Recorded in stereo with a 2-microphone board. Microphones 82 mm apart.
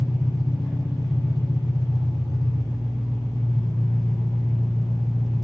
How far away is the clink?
I don't hear a clink.